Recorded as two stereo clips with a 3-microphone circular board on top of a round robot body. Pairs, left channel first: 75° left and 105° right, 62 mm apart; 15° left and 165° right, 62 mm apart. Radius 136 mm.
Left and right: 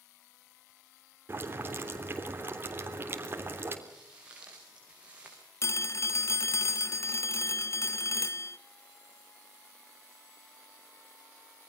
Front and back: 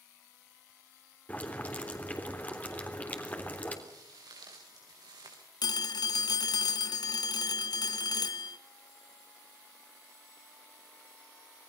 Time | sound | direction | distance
1.3 | boiling | 50° right | 3.5 m
3.9 | footsteps | straight behind | 5.5 m
5.6 | a phone ringing | 30° left | 0.7 m